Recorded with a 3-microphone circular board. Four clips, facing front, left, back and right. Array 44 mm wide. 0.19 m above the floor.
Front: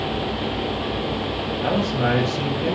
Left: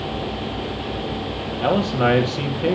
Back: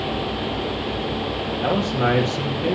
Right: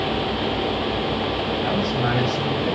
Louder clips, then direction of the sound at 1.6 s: Left 8 dB, back 1 dB; 95° left.